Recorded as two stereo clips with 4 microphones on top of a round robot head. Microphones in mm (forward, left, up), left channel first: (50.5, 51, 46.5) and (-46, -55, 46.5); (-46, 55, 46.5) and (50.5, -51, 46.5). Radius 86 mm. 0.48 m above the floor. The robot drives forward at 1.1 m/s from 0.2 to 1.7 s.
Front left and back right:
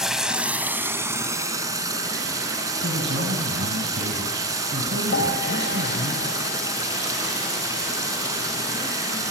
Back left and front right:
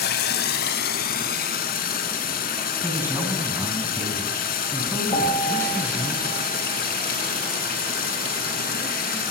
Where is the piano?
75° left, 3.5 m.